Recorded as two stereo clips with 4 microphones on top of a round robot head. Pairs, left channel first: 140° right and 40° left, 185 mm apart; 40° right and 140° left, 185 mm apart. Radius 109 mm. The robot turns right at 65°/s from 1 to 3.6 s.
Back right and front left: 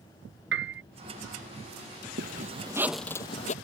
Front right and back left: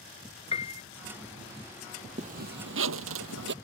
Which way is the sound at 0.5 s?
20° left.